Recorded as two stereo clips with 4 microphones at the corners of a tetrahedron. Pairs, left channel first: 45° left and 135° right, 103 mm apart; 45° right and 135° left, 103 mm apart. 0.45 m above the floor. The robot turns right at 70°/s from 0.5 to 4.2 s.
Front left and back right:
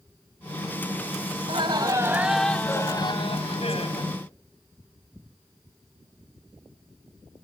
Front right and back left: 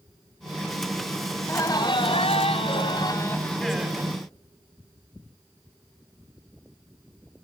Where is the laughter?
115° right, 3 m; by 4.1 s 80° left, 3 m.